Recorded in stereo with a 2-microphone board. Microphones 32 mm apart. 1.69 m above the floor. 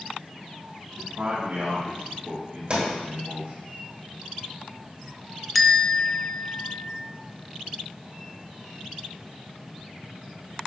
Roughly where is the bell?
Centre.